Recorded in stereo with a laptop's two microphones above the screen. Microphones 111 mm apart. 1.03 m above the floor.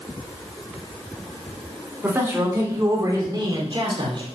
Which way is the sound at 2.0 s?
20° right (ahead or behind).